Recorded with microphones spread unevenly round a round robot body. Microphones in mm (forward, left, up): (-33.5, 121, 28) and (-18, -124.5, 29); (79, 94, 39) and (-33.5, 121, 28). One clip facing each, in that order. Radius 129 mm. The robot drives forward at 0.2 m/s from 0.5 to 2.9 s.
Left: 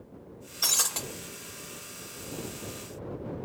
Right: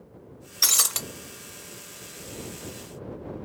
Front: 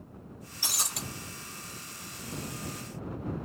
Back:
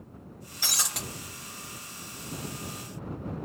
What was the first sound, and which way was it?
Breaking glass, 145° right.